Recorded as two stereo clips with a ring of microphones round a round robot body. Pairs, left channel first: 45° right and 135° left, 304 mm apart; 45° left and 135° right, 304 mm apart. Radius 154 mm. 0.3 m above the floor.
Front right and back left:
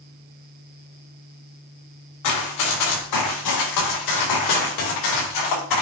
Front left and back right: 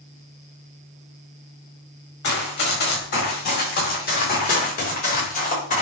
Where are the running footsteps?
10° right, 4.5 m; by 5.8 s 20° right, 6.5 m.